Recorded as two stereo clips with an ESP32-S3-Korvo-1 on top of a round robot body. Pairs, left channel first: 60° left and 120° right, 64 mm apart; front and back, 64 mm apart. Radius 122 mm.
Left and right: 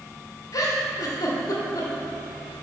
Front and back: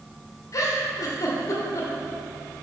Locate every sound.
0.5 s a giggle: 30° left, 1.4 m